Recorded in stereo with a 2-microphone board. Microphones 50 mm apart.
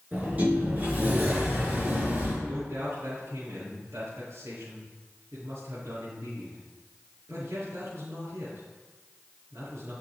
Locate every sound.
0.1 s a sliding door: 35° right (ahead or behind), 5.5 m
2.4 s a man speaking: 80° right, 5.5 m